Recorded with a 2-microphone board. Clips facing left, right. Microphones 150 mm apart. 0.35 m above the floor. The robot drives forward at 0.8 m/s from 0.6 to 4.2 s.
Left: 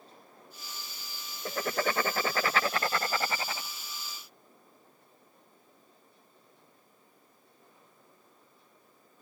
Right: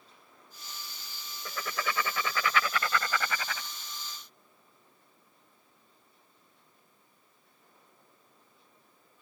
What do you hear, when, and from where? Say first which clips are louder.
1.4 s writing: left 5 dB; 40° left (ahead or behind); by 3.7 s 25° left (ahead or behind)